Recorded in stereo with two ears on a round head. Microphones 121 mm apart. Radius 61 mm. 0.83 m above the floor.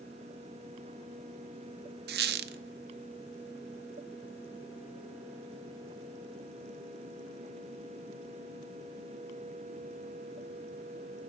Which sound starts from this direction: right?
A squeak, at 2.1 s.